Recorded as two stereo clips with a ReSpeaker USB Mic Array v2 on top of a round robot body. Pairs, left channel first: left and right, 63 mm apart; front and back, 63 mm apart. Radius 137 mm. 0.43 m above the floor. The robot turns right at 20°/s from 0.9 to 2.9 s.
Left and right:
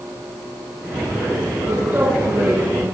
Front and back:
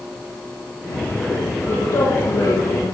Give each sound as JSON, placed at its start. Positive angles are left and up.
{"t": 1.7, "sound": "a woman speaking", "azimuth_deg": -50, "distance_m": 7.0}